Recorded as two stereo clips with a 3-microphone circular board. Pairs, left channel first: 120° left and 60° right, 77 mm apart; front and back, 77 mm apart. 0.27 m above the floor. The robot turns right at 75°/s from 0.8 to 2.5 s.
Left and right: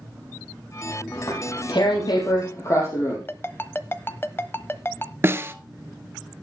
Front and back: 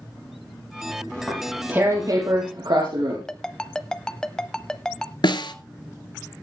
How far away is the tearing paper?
About 5.5 m.